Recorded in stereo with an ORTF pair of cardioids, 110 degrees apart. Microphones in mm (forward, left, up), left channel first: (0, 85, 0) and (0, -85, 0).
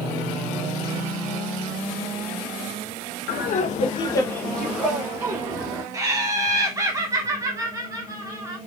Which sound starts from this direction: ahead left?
Laughter, at 3.3 s.